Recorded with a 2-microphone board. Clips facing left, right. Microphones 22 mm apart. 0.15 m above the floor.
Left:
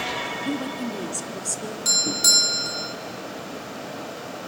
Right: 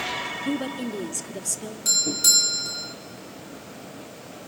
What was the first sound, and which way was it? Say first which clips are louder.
A woman speaking: even; 5° right (ahead or behind).